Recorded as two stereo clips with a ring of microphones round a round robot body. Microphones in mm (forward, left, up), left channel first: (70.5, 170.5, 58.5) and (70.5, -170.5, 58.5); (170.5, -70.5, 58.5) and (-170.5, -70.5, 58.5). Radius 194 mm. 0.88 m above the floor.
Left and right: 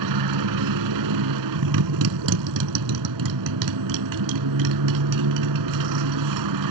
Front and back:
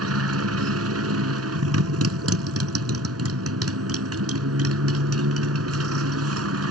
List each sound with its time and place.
0.0 s a motorcycle: 130° right